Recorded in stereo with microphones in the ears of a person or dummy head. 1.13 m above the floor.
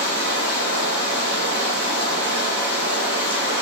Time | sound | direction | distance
0.0 | running water | 55° right (ahead or behind) | 4.5 m